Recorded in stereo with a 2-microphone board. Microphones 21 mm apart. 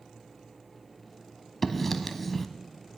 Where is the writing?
5° left (ahead or behind), 0.8 m.